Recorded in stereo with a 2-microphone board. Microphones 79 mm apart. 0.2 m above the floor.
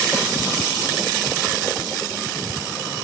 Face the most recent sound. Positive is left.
No sound to turn to.